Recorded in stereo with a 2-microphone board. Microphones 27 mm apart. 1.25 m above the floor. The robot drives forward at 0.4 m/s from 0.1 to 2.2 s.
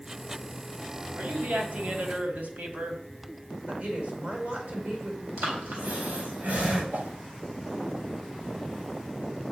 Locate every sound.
1.2 s a woman speaking: 85° right, 2.5 m
3.7 s a woman speaking: 60° right (ahead or behind), 4.5 m
5.4 s breathing: 80° right, 4 m
6.9 s a whoosh: 65° right (ahead or behind), 0.8 m